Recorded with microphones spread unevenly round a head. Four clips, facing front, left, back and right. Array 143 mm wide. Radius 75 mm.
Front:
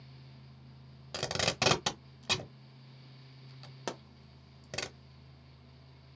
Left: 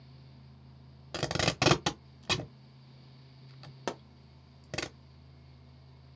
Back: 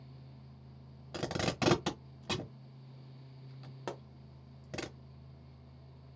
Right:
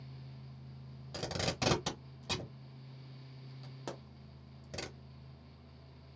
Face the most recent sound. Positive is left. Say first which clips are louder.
# left 7 dB, front 2 dB
turn(degrees=55)